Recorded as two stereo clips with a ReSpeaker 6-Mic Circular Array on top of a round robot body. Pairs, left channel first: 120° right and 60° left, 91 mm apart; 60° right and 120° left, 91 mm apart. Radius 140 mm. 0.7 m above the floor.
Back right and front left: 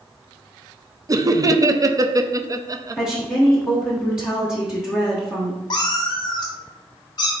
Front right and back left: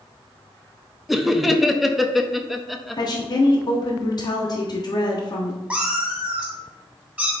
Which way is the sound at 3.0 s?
20° right.